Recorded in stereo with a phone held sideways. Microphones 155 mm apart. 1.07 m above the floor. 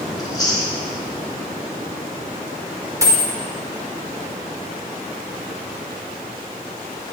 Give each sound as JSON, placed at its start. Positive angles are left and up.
{"t": 0.2, "sound": "chewing", "side_deg": 25, "distance_m": 1.0}
{"t": 3.0, "sound": "a dropped coin", "side_deg": -20, "distance_m": 0.7}